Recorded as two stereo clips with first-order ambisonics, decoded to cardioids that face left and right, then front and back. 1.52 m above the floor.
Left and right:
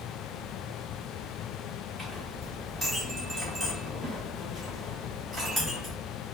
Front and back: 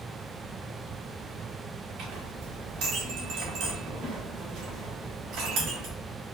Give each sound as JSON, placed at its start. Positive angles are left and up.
{"t": 2.0, "sound": "a clink", "azimuth_deg": -175, "distance_m": 1.8}